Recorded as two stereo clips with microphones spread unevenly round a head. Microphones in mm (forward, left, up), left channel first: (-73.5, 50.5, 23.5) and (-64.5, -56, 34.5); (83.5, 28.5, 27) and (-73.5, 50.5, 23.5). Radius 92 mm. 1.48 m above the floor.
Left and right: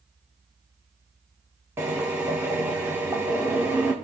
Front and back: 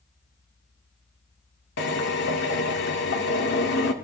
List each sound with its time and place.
1.8 s a drill: 10° right, 2 m